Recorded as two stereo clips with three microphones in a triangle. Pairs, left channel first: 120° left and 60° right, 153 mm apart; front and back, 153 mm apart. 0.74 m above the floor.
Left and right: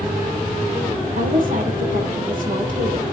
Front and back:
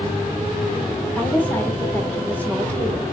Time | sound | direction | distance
1.2 | a woman speaking | 80° right | 2.5 m